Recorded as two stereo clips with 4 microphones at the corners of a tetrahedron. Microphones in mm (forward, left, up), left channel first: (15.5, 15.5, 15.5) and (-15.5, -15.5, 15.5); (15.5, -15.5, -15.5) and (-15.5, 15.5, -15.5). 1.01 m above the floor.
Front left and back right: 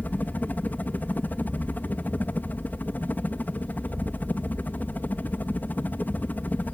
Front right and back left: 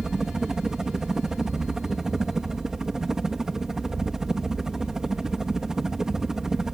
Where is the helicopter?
60° left.